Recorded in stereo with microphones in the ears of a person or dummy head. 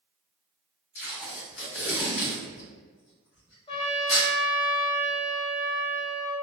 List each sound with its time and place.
0.9 s tape being pulled: 65° left (ahead or behind), 1.7 m
3.7 s a trumpet: 30° left (ahead or behind), 0.6 m